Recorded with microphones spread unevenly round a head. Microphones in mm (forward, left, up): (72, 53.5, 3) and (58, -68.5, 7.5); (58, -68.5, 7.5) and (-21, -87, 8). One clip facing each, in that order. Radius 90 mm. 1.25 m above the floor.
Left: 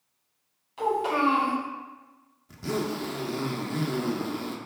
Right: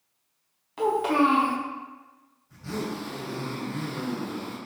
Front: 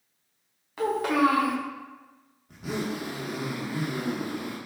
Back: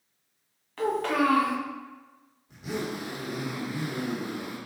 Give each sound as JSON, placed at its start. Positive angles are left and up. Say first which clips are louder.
{"t": 0.8, "sound": "a child speaking", "louder": "right 3 dB, front 2 dB", "azimuth_deg": -65, "distance_m": 1.4}
{"t": 2.5, "sound": "a zipper", "louder": "left 3 dB, front 1 dB", "azimuth_deg": 80, "distance_m": 0.7}